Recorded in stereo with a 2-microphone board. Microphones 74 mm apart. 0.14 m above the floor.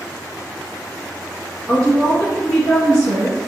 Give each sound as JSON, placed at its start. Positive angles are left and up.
{"t": 1.7, "sound": "a woman speaking", "side_deg": 10, "distance_m": 1.1}